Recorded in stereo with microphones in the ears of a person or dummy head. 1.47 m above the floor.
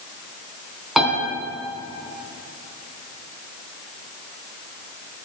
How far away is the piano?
About 3.5 m.